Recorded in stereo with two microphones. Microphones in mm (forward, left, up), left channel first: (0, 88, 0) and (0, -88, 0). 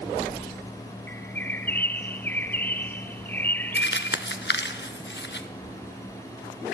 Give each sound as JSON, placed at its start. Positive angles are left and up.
{"t": 1.1, "sound": "a bird", "side_deg": 10, "distance_m": 1.0}
{"t": 3.8, "sound": "crumpling", "side_deg": 70, "distance_m": 1.3}